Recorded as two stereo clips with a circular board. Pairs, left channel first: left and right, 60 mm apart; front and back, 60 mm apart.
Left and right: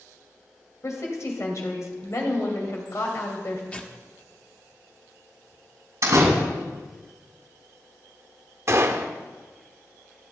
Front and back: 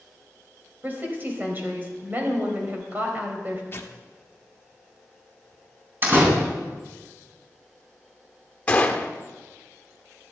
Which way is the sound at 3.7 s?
30° left.